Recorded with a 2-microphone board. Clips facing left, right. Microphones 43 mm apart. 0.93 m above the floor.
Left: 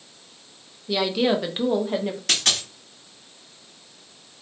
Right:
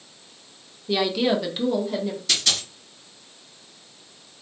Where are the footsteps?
No footsteps in this recording.